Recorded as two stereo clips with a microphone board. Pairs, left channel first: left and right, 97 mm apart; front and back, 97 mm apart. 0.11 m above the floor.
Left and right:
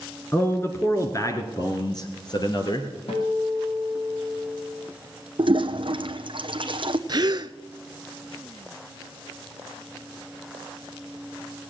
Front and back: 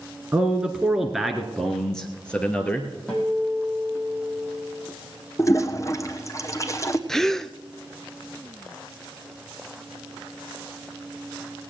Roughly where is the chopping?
I don't hear chopping.